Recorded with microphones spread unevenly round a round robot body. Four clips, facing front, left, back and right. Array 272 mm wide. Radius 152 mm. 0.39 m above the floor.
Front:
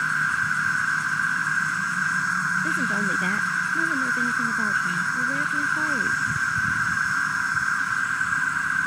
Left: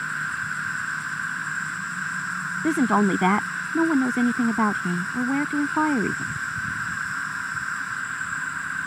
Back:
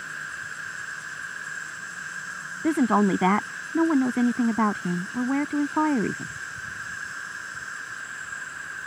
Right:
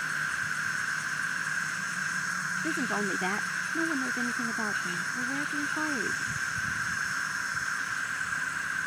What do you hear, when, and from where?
0.0 s an insect: 20° left
2.6 s a woman speaking: 120° left